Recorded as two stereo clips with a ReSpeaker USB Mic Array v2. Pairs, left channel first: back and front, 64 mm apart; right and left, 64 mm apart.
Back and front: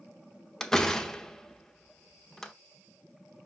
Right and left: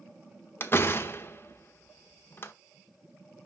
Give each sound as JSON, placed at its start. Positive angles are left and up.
{"t": 0.6, "sound": "a door slam", "azimuth_deg": -100, "distance_m": 0.9}